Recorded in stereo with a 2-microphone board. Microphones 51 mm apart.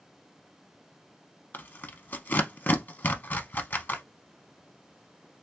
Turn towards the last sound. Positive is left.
turn(degrees=45)  # may be behind; listen again after turning